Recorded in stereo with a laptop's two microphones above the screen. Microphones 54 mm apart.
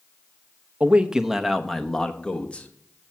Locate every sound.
0.8 s a man speaking: 25° right (ahead or behind), 0.8 m; by 3.1 s 30° left (ahead or behind), 1.5 m